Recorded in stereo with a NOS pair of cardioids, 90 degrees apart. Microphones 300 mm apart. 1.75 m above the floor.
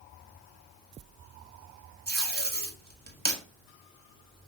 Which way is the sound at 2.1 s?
30° right.